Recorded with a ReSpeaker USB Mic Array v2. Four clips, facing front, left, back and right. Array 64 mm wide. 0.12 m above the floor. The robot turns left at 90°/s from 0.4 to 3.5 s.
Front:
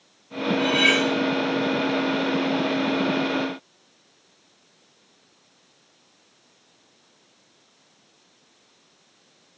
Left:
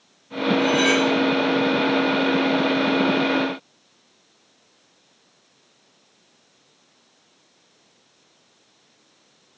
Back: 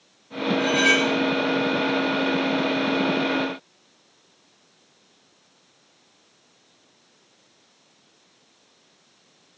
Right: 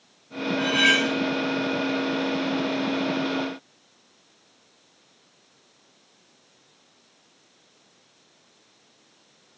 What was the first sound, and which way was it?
Cutlery clinking, 10° left.